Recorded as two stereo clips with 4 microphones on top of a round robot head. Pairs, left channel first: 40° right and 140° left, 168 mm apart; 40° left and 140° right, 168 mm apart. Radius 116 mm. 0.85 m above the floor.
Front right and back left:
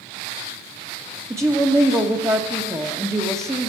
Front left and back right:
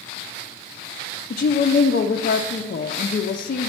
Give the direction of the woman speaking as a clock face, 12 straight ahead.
10 o'clock.